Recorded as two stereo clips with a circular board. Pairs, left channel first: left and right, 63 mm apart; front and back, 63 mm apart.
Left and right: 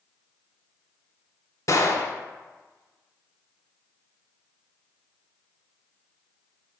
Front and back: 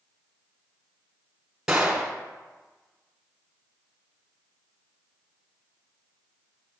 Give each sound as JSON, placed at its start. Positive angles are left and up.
{"t": 1.7, "sound": "a gunshot", "azimuth_deg": 100, "distance_m": 1.0}